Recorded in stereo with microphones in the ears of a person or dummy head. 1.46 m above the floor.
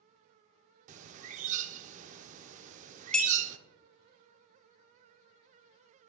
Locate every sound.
0.9 s a bird: 45° right (ahead or behind), 0.6 m
3.1 s a clink: 5° left (ahead or behind), 0.8 m